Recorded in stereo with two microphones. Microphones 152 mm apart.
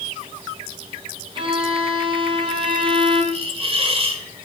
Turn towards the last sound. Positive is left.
turn(degrees=-40)  # may be behind; listen again after turning